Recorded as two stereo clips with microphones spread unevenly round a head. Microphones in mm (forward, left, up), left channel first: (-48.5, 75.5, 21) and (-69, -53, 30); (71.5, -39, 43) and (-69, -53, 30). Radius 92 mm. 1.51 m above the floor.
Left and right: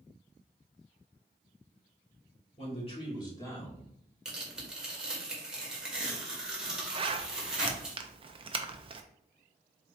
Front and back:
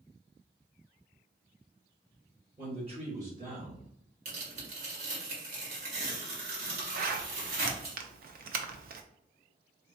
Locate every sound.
2.6 s a man speaking: 120° left, 2 m; by 3.9 s 165° left, 1.9 m
4.2 s tearing paper: straight behind, 1.6 m
7.0 s a zipper: 150° right, 0.6 m